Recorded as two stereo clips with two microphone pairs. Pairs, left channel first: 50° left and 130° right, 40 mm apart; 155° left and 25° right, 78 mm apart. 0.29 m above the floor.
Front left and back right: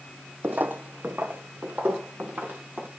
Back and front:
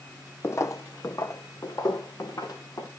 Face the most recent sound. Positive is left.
turn(degrees=-170)